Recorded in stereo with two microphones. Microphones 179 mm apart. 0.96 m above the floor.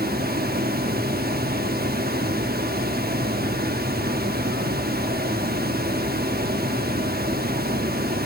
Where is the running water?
60° right (ahead or behind), 0.9 m.